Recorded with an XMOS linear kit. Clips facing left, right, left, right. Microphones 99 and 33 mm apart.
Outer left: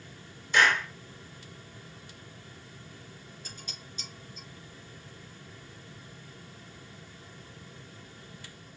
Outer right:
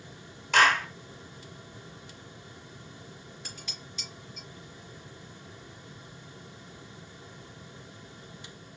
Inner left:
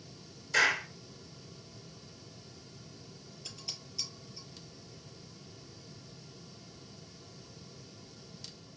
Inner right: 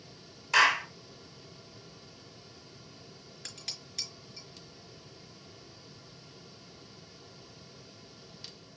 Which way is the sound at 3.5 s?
75° right (ahead or behind).